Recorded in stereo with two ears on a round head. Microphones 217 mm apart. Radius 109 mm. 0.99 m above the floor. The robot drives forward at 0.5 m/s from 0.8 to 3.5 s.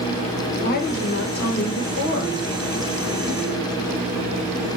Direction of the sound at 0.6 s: 35° left (ahead or behind).